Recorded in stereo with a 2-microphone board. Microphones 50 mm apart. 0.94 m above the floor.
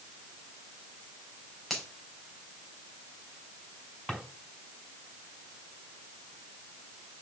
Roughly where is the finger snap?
Centre.